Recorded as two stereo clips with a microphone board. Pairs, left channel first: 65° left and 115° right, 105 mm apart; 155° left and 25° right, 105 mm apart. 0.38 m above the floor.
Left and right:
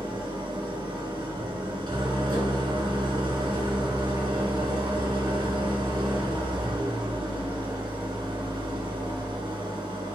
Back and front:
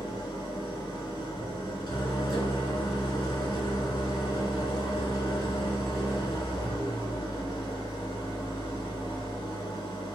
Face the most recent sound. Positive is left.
turn(degrees=-155)